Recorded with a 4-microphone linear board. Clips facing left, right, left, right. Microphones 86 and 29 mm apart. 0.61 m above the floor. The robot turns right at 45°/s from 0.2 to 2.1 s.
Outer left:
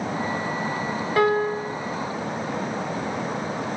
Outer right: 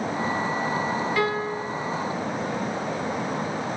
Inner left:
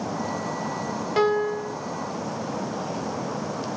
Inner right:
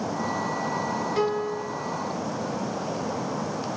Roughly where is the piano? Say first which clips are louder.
Outer left 5 dB, inner left 7 dB; left.